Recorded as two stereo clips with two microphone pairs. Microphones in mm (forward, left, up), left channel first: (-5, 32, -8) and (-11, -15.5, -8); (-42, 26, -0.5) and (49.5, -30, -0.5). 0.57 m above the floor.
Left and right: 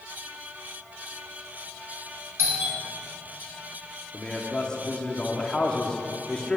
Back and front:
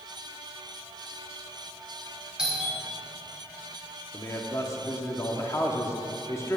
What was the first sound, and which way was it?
A doorbell, 110° right.